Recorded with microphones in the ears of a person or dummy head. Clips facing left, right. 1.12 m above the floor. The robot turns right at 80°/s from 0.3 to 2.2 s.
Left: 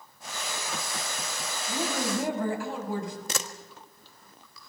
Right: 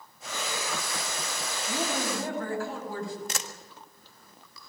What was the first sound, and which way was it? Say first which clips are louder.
A woman speaking: left 1 dB; 25° right.